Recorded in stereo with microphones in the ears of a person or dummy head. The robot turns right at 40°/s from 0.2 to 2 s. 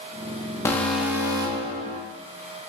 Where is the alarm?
165° left, 0.6 m; by 2.0 s 140° right, 0.6 m.